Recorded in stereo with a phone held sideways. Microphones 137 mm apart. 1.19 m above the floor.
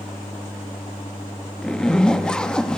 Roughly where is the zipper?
Centre.